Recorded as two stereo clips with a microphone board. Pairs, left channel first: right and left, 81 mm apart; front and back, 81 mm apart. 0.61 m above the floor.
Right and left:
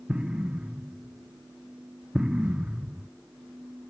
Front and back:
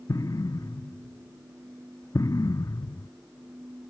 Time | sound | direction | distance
0.1 | an explosion | 15° left | 0.5 m